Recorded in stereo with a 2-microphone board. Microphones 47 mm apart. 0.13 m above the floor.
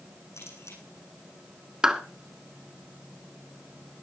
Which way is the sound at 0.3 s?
80° left.